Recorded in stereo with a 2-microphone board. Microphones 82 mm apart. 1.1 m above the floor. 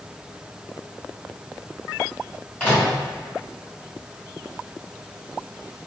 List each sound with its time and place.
2.6 s a microwave: 25° left (ahead or behind), 1.6 m